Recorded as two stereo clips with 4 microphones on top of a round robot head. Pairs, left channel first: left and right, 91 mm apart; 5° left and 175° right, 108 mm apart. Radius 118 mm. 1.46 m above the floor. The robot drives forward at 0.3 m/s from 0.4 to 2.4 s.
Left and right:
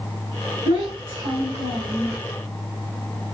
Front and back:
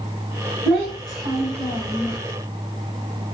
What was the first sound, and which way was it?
A child speaking, 115° right.